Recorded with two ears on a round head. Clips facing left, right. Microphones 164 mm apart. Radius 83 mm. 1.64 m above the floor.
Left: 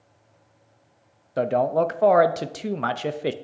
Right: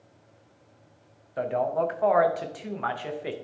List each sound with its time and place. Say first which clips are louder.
1.4 s a man speaking: left 5 dB; 45° left (ahead or behind), 0.6 m